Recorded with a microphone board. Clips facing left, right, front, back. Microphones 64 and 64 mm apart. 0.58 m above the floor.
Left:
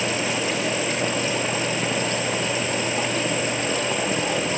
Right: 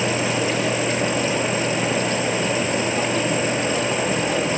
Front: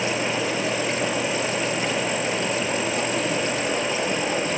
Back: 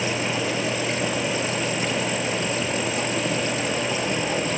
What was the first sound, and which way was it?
Only background noise.